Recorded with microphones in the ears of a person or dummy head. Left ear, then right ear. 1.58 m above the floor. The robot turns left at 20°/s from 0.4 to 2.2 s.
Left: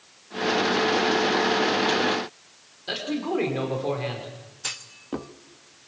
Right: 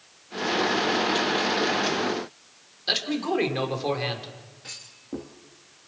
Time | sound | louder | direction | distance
2.9 | a man speaking | right 3 dB | 30° right (ahead or behind) | 5 m
4.6 | a clunk | left 7 dB | 30° left (ahead or behind) | 1.1 m